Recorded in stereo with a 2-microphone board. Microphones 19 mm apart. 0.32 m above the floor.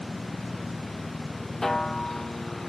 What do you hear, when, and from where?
0.0 s a helicopter: 35° left (ahead or behind); by 2.7 s 30° left (ahead or behind)
1.6 s a snare drum: 25° left (ahead or behind)